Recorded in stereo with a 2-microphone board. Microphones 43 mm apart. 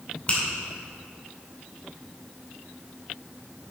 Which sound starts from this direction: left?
A finger snap, at 0.3 s.